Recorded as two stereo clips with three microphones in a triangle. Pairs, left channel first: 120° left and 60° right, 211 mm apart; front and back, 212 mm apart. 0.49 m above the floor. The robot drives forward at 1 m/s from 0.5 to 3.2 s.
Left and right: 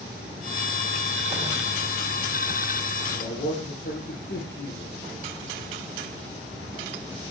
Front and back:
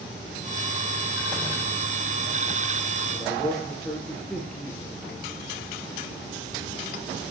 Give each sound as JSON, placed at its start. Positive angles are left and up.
{"t": 3.1, "sound": "a man speaking", "azimuth_deg": 85, "distance_m": 10.0}